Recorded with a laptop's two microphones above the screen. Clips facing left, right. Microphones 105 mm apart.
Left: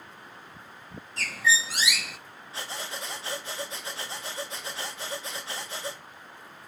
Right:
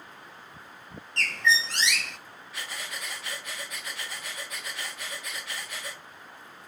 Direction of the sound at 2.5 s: 30° left (ahead or behind).